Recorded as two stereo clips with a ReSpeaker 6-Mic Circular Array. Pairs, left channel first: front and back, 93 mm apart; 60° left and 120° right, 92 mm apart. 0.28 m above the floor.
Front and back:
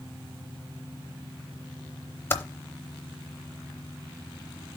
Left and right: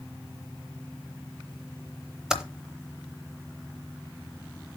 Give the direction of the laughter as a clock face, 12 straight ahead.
No laughter in this recording.